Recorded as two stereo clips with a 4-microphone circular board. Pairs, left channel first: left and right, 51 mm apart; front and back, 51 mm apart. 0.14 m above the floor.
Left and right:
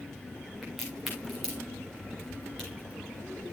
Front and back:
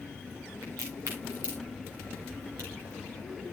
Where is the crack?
Straight behind, 5.5 m.